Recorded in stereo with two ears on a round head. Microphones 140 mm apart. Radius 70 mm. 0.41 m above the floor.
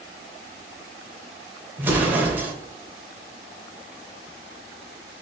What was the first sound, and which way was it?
An explosion, 10° right (ahead or behind).